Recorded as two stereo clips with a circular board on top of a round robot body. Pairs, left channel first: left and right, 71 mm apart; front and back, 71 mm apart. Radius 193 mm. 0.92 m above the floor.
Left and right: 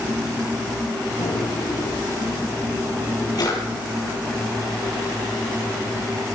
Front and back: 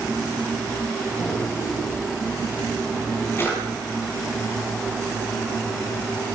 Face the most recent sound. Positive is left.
turn(degrees=60)